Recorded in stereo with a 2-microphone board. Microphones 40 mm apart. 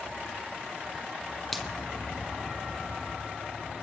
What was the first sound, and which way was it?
A finger snap, 5° left (ahead or behind).